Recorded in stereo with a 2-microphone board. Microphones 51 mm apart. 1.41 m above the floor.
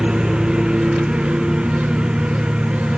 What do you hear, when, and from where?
0.0 s a lawn mower: 15° right (ahead or behind)